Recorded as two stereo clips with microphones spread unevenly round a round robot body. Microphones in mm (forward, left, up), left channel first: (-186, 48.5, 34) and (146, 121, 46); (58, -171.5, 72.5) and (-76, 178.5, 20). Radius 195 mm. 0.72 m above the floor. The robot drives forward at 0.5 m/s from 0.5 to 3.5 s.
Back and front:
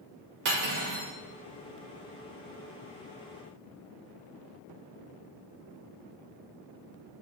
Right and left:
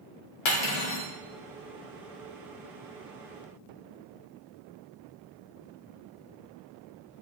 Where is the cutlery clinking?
50° right, 1.5 m; by 1.1 s 65° right, 1.3 m.